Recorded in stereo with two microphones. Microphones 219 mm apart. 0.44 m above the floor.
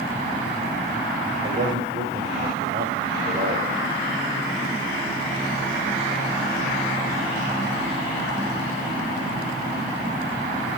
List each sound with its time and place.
1.4 s a man speaking: 55° right (ahead or behind), 1.9 m